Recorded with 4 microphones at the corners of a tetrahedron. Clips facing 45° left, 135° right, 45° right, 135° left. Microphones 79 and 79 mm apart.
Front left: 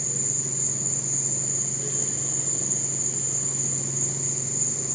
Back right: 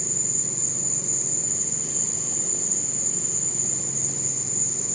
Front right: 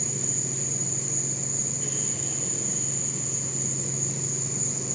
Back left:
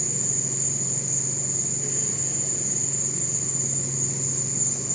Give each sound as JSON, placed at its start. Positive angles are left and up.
{"t": 0.0, "sound": "an insect", "azimuth_deg": -155, "distance_m": 5.5}